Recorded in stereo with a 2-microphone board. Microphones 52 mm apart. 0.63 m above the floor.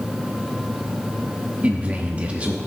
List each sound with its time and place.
1.6 s a man speaking: 25° right (ahead or behind), 0.8 m